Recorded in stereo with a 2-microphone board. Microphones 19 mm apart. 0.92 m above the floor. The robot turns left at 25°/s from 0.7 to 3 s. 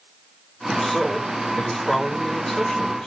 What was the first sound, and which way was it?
A man speaking, 160° left.